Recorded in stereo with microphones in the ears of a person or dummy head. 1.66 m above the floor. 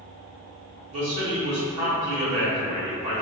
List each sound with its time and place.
0.9 s a man speaking: 50° right (ahead or behind), 1.6 m